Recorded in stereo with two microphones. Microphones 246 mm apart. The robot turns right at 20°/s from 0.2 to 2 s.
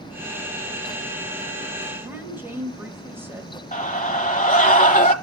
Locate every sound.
2.0 s a woman speaking: 10° right (ahead or behind), 1.4 m
3.7 s a scream: 30° left (ahead or behind), 1.1 m